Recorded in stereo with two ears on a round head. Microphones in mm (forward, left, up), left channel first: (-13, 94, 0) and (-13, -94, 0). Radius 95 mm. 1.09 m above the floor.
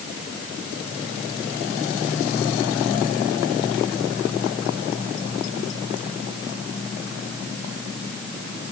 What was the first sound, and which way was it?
Only background noise.